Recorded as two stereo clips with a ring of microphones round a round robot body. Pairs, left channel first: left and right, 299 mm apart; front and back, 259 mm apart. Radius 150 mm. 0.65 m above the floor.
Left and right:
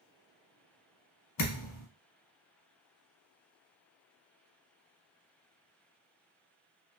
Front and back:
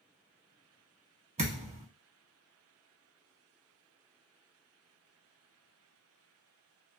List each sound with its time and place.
1.4 s a thud: 120° left, 0.9 m